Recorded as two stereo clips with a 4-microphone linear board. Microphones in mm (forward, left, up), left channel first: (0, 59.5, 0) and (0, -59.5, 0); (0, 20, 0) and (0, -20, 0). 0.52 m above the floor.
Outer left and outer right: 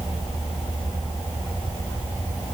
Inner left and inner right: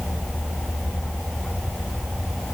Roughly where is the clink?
No clink in this recording.